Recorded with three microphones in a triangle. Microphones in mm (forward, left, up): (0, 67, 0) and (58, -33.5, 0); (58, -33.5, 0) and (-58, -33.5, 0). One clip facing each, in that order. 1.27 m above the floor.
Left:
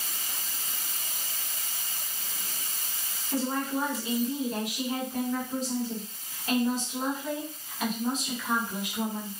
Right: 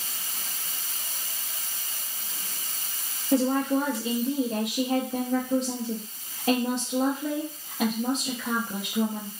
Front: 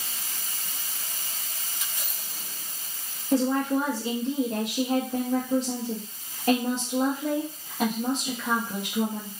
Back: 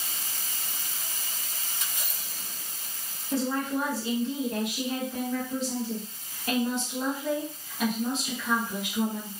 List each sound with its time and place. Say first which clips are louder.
3.3 s a woman speaking: right 7 dB, front 5 dB; 55° right, 0.7 m